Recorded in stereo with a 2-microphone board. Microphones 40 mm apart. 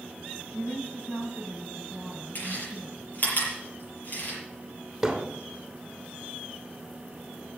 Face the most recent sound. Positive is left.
turn(degrees=-5)  # may be behind; listen again after turning